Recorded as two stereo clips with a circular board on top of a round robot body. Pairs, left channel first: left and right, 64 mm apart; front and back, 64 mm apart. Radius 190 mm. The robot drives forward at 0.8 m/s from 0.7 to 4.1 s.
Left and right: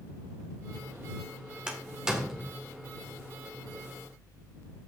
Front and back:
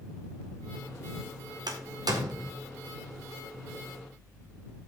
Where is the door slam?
170° right, 1.8 m.